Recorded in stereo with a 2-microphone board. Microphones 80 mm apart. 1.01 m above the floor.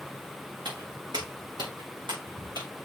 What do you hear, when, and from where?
0.7 s footsteps: 70° right (ahead or behind), 4 m; by 2.7 s 75° right (ahead or behind), 4 m